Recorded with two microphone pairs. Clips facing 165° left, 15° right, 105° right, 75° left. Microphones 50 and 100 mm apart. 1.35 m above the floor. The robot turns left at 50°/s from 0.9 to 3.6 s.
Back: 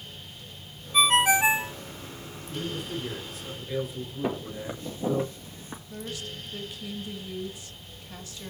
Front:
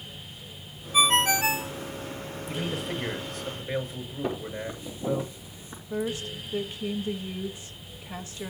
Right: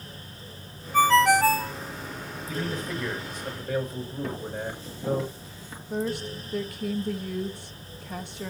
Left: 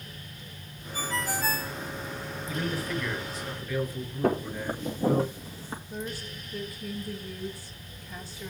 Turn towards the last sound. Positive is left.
turn(degrees=-80)